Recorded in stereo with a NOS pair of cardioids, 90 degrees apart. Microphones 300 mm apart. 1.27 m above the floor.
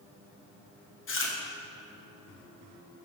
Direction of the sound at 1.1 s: 45° left.